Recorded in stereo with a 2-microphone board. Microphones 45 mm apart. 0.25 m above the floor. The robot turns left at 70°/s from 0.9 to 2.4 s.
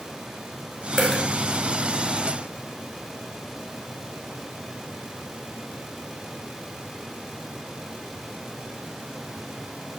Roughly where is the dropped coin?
Centre.